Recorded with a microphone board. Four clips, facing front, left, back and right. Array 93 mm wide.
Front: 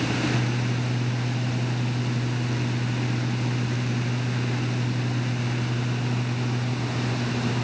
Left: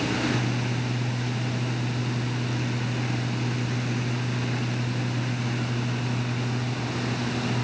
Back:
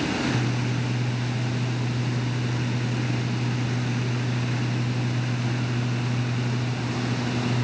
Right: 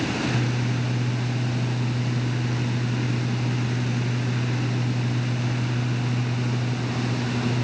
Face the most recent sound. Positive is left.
No sound to turn to.